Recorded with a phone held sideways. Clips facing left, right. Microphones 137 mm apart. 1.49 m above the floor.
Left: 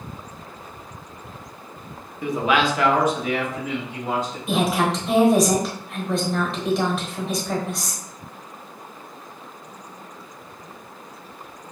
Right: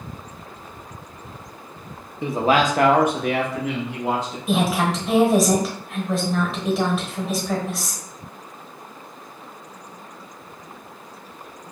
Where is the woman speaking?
Centre (ahead or behind), 1.2 m.